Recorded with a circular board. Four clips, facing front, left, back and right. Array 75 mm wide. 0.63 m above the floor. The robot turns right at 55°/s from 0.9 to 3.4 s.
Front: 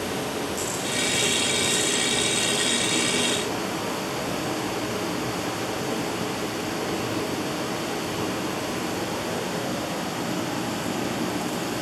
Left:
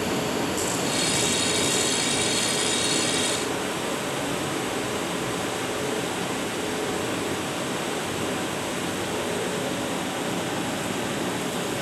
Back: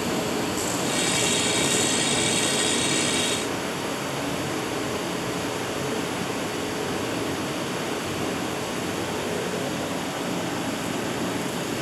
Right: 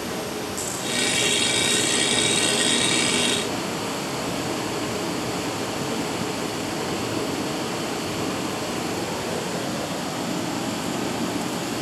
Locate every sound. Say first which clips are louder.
0.0 s running water: left 3 dB, back 3 dB; 135° left, 8 m; by 11.8 s 85° right, 8 m